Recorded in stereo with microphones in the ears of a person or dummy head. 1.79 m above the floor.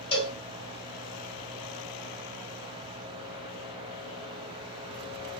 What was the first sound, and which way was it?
A cowbell, 30° left (ahead or behind).